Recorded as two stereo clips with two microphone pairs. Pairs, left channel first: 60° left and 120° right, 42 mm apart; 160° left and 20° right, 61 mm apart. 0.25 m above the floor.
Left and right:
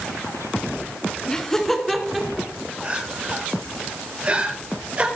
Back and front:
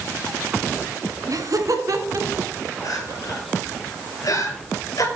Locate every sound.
1.3 s laughter: 10° right, 2.5 m; by 2.5 s 40° right, 3 m
2.8 s crying: straight behind, 3 m